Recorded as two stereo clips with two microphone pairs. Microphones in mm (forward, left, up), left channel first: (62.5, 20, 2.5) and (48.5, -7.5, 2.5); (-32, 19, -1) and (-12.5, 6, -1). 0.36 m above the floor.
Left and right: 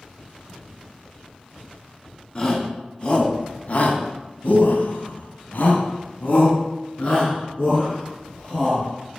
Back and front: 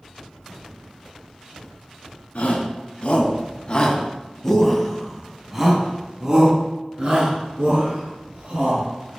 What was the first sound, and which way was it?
A shout, 125° left.